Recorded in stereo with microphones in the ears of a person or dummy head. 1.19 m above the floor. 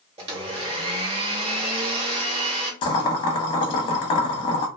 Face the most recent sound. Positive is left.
turn(degrees=25)  # may be behind; listen again after turning